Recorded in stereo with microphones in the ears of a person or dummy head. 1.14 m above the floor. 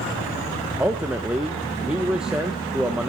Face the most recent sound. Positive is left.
turn(degrees=-5)  # may be behind; listen again after turning